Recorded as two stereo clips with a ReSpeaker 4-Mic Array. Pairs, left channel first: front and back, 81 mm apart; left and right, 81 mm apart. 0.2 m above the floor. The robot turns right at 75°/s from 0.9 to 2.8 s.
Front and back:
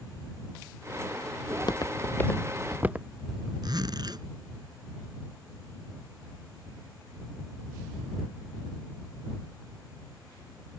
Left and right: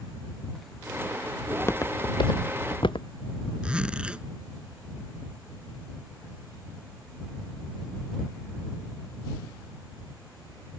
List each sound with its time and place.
1.5 s footsteps: 15° left; by 3.5 s 105° left
3.6 s a zipper: 165° right